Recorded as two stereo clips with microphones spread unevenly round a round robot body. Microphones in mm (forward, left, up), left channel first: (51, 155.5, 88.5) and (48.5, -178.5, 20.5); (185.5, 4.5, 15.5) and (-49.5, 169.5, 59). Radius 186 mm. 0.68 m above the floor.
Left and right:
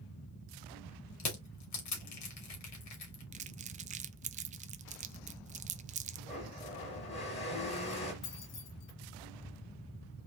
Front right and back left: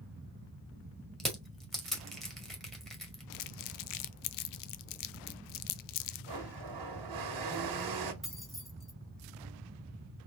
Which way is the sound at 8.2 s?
55° left.